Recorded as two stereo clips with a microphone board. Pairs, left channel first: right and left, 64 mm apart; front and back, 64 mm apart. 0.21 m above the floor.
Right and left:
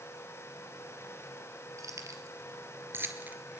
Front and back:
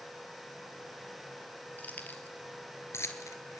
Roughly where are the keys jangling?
Ahead left.